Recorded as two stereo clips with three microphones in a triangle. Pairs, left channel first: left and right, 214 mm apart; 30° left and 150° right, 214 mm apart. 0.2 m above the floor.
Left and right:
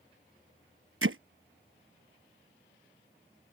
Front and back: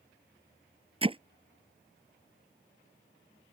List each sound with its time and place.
1.0 s hammering: 85° right